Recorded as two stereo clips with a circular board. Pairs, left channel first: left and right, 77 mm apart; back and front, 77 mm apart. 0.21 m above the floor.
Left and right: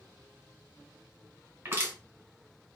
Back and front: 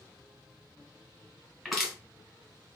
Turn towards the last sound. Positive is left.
turn(degrees=-85)